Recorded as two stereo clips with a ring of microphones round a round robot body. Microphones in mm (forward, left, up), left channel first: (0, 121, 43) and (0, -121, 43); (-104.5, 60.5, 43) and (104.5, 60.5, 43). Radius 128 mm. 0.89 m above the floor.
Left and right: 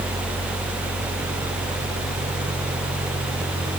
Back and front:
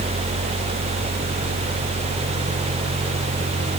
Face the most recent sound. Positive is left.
No sound to turn to.